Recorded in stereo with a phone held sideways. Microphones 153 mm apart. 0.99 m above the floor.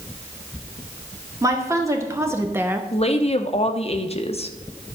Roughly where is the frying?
No frying in this recording.